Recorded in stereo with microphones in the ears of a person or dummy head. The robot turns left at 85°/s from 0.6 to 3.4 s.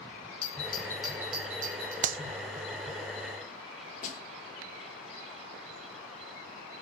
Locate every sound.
0.4 s a doorbell: 35° left (ahead or behind), 6 m; by 1.9 s 80° right, 6 m
2.0 s a clap: 50° right (ahead or behind), 0.6 m; by 2.2 s 60° right (ahead or behind), 0.6 m
4.0 s a snare drum: 40° left (ahead or behind), 5.5 m